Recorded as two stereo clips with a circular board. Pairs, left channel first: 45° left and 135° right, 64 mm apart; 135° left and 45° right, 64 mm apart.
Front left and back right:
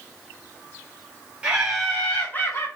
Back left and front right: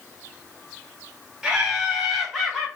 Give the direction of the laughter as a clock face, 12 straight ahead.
4 o'clock.